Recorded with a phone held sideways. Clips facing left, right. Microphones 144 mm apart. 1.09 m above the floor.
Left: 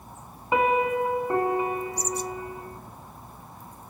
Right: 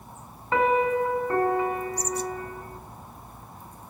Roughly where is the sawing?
I don't hear sawing.